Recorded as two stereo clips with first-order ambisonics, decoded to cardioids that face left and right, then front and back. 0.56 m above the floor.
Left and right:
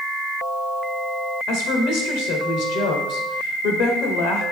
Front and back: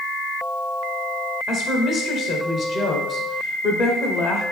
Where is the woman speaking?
60° left, 1.7 m.